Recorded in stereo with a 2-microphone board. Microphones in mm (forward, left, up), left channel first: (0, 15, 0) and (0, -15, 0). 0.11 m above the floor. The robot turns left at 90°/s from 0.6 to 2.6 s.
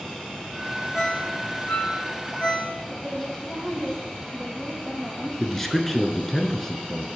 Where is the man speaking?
10° left (ahead or behind), 1.1 m.